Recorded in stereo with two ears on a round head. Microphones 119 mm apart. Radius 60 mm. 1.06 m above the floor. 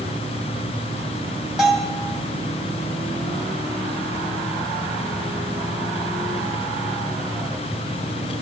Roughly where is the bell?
Centre.